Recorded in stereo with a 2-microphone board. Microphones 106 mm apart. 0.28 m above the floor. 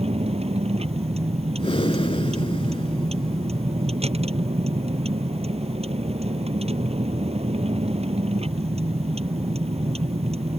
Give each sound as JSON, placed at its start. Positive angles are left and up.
{"t": 0.0, "sound": "a vehicle", "side_deg": -80}
{"t": 1.6, "sound": "breathing", "side_deg": 60}